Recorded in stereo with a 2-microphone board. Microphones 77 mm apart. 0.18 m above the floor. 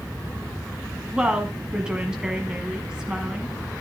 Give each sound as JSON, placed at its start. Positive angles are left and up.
{"t": 1.1, "sound": "a woman speaking", "side_deg": -10, "distance_m": 1.2}